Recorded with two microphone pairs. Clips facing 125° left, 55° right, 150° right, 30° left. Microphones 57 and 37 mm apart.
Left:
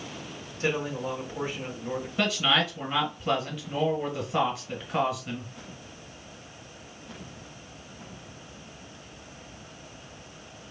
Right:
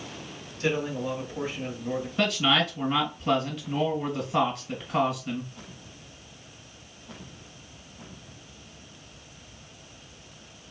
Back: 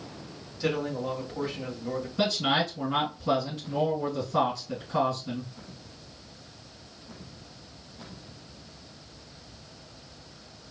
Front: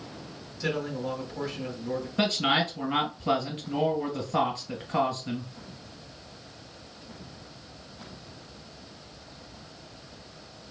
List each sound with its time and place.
0.6 s a man speaking: 170° left, 1.9 m
2.2 s a man speaking: 40° left, 1.9 m